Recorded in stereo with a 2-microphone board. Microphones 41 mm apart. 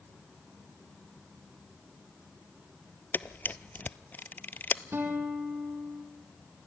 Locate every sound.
3.1 s a camera shutter: 50° left (ahead or behind), 0.7 m
4.9 s a guitar: 65° right (ahead or behind), 4.5 m